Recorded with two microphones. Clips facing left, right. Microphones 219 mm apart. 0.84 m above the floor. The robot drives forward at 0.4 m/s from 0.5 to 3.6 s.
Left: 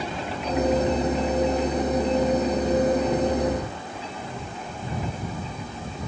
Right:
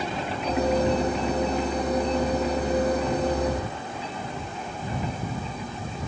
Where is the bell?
I don't hear a bell.